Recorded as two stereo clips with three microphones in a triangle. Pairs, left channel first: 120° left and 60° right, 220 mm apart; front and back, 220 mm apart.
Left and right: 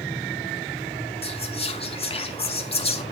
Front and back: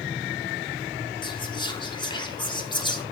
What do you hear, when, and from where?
1.2 s whispering: 65° left, 1.6 m